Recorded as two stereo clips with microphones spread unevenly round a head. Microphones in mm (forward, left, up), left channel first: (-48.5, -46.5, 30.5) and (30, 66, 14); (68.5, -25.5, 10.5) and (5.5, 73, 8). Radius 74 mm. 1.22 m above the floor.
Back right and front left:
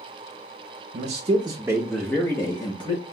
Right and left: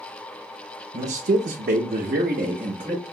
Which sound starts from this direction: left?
A man speaking, at 0.9 s.